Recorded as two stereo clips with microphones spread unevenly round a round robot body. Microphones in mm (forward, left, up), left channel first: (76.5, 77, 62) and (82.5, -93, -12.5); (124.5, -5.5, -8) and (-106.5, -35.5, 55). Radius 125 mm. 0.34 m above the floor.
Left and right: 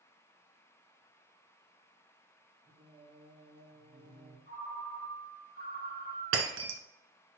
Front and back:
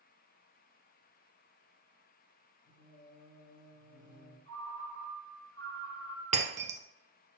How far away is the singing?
About 3.5 m.